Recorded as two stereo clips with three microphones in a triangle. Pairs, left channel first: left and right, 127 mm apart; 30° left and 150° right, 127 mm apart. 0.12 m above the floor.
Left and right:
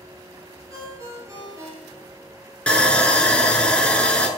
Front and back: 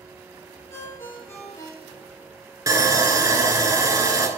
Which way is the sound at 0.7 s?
30° right.